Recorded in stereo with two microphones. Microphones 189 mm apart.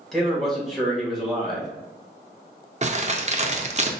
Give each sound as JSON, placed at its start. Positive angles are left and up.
{"t": 0.1, "sound": "a man speaking", "side_deg": 0, "distance_m": 1.5}
{"t": 2.8, "sound": "crumpling", "side_deg": -35, "distance_m": 0.5}